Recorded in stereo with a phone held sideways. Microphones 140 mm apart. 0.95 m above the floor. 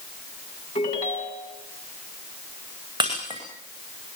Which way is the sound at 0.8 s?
55° left (ahead or behind).